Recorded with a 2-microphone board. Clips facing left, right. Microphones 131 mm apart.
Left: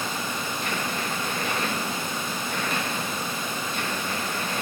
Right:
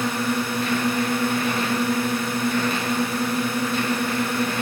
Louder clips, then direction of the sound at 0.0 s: Right 7 dB; 70° right (ahead or behind).